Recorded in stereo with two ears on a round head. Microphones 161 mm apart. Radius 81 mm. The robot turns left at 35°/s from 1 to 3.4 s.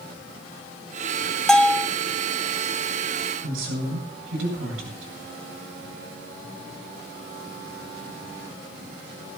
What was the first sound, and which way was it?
A bell, 5° left (ahead or behind).